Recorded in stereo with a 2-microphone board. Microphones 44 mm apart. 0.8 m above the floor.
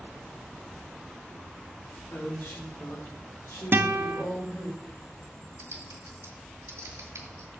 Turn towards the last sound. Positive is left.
turn(degrees=-80)